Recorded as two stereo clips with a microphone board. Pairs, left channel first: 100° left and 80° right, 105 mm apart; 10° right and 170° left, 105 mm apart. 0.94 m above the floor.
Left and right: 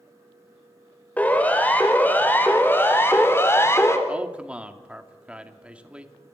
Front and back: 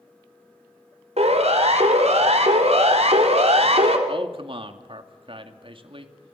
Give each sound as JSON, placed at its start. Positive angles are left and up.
{"t": 1.2, "sound": "a siren", "azimuth_deg": 175, "distance_m": 5.0}
{"t": 4.1, "sound": "a man speaking", "azimuth_deg": -160, "distance_m": 2.5}